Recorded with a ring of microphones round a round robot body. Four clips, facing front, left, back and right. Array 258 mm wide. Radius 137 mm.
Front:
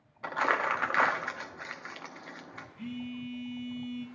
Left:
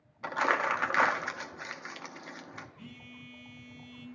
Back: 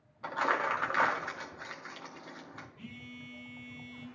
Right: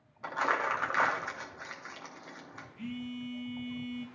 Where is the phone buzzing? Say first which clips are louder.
Right 11 dB, front 10 dB; 40° right, 1.5 m.